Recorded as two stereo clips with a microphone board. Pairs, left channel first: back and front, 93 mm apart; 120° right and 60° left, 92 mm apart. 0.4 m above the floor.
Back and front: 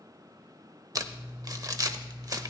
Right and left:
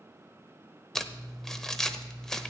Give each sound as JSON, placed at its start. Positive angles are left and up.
{"t": 0.9, "sound": "crumpling", "azimuth_deg": -35, "distance_m": 0.7}